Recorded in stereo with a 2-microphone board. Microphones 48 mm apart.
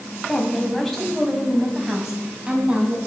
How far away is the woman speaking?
About 3.5 m.